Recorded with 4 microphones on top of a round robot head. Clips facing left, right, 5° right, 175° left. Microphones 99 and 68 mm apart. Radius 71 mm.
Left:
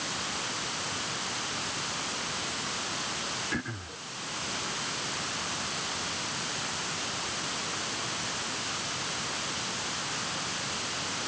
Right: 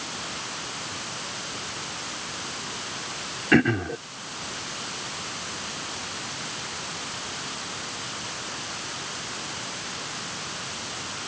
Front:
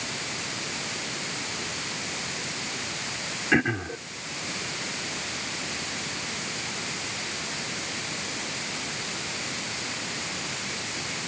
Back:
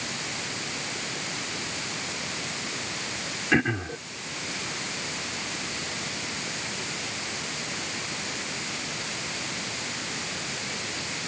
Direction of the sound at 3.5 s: 90° right.